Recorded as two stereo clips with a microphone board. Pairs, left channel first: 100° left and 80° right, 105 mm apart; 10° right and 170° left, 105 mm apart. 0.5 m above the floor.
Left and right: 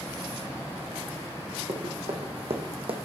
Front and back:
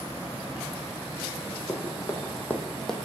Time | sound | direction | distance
1.7 | running footsteps | 70° right | 2 m